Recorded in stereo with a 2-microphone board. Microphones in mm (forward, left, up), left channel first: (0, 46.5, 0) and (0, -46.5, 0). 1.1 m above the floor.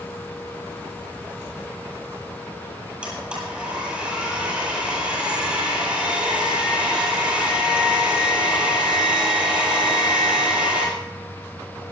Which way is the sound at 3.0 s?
10° right (ahead or behind).